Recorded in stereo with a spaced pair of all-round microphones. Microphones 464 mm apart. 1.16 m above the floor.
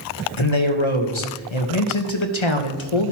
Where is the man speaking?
80° left, 1.1 m.